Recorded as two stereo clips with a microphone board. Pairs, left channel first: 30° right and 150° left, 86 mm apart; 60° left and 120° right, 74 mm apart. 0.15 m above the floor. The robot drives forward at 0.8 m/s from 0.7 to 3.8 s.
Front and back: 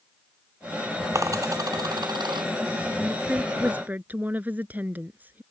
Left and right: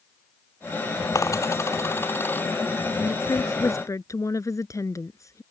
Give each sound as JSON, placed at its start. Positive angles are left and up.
{"t": 1.1, "sound": "a dropped coin", "azimuth_deg": 100}
{"t": 3.0, "sound": "a woman speaking", "azimuth_deg": 65}